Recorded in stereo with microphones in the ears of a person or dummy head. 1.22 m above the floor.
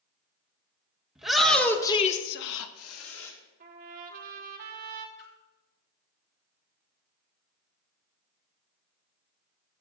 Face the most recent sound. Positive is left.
turn(degrees=50)  # may be behind; listen again after turning